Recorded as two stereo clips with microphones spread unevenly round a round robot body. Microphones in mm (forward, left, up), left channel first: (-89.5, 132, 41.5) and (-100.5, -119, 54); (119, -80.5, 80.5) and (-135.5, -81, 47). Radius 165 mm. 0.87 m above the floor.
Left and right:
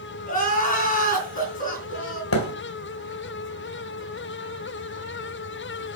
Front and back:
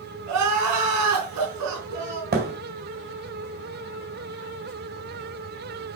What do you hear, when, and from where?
0.3 s crying: 145° left, 3.5 m
2.3 s a thud: 120° left, 1.6 m